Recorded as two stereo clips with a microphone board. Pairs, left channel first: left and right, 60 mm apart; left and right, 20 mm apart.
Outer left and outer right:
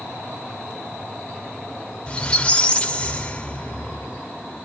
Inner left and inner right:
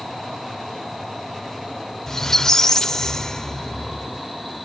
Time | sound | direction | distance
2.1 | a squeak | 20° left (ahead or behind) | 0.9 m